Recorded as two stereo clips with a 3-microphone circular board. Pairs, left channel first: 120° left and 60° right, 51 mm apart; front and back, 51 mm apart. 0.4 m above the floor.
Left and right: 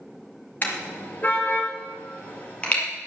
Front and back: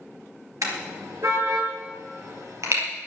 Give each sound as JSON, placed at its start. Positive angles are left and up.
{"t": 0.6, "sound": "a car horn", "azimuth_deg": 180, "distance_m": 3.5}